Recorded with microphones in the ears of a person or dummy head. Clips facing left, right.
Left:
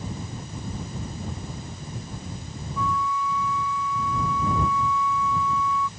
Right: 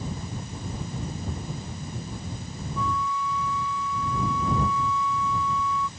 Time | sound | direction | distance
2.8 | a flute | 35° right (ahead or behind) | ?